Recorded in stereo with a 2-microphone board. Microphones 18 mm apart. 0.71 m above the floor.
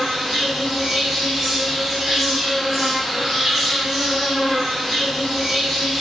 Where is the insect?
45° right (ahead or behind), 1.7 m.